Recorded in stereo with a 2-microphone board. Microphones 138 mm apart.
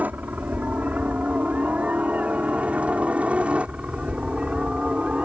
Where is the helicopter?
10° right (ahead or behind); by 5.3 s 5° right (ahead or behind).